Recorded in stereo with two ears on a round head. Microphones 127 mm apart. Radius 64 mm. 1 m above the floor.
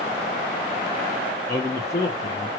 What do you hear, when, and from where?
1.5 s a man speaking: 25° left (ahead or behind), 0.7 m